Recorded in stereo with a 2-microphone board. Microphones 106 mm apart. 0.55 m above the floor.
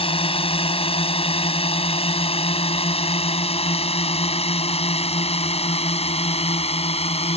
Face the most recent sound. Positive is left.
turn(degrees=75)  # may be behind; listen again after turning